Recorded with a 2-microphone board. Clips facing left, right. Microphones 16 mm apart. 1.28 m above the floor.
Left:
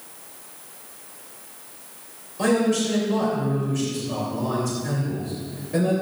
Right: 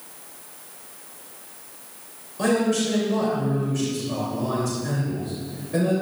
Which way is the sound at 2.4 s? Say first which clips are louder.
Left 1 dB; 5° right (ahead or behind).